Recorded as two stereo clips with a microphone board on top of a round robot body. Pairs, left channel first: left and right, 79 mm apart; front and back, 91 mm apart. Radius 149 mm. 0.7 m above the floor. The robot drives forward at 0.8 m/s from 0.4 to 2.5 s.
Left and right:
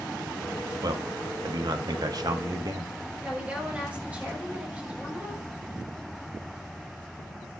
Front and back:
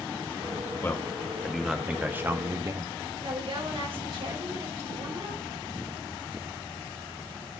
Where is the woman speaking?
165° right, 4 m.